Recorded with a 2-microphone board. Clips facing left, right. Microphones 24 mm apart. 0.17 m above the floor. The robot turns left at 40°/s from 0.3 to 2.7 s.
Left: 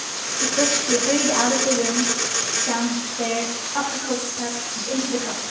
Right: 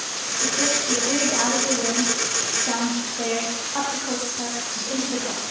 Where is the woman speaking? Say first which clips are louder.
Left 2 dB; 75° left (ahead or behind), 8 m; by 5.4 s 10° right (ahead or behind), 8 m.